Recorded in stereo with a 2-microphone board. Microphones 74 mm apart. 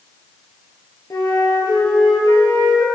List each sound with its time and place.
1.1 s a flute: 70° left (ahead or behind), 9 m